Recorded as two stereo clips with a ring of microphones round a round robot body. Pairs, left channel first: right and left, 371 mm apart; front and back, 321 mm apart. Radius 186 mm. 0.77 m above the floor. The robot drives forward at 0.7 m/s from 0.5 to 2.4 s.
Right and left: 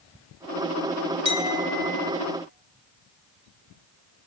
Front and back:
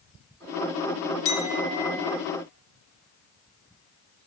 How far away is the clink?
About 7.5 m.